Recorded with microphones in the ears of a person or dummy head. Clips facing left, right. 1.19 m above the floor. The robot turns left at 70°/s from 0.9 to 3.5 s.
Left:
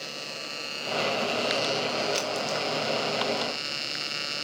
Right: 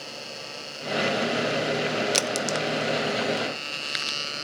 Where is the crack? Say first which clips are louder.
Right 3 dB; 65° right (ahead or behind), 0.8 m; by 3.5 s 10° right (ahead or behind), 0.8 m.